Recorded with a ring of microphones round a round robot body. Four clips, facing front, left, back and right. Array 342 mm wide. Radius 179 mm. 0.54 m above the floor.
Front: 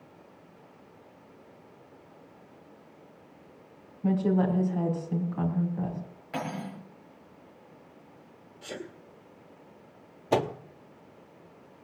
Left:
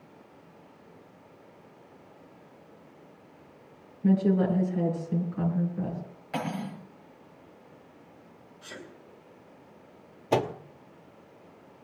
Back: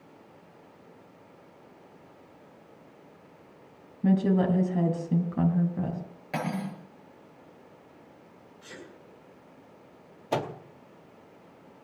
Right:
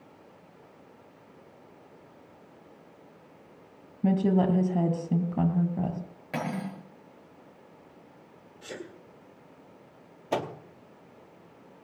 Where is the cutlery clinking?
135° right, 7 m.